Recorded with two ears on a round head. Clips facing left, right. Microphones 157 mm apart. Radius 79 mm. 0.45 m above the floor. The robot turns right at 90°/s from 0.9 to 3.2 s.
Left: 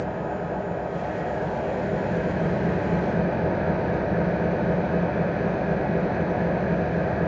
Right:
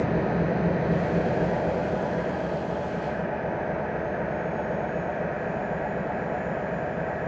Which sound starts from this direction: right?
An engine running, at 0.0 s.